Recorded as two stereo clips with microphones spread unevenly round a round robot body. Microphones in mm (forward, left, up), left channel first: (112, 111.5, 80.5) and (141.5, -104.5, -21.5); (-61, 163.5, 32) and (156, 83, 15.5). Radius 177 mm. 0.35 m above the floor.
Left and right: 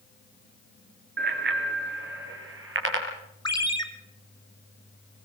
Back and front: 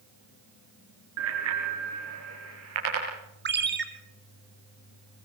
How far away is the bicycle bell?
About 4 m.